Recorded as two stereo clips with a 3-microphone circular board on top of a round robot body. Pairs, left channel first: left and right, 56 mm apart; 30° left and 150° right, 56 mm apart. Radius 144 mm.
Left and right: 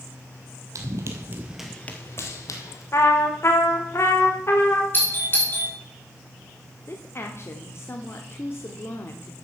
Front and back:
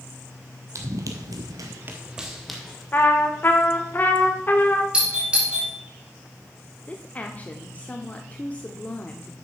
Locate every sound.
0.8 s running footsteps: 120° right, 1.1 m; by 2.8 s 110° left, 1.3 m
2.9 s a trumpet: 75° left, 2 m
4.9 s a doorbell: 140° left, 4 m
6.9 s a woman speaking: 85° left, 1.2 m